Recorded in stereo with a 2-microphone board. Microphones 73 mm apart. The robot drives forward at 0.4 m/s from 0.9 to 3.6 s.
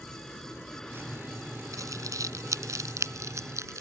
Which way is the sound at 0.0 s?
15° left (ahead or behind).